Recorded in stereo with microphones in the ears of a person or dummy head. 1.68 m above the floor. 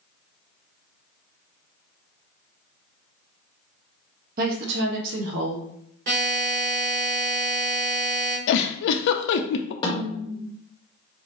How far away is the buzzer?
About 1.2 m.